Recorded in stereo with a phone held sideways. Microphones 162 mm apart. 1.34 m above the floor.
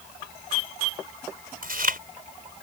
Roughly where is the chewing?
Right.